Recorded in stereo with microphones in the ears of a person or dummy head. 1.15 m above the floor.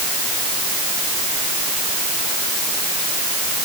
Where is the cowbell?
No cowbell in this recording.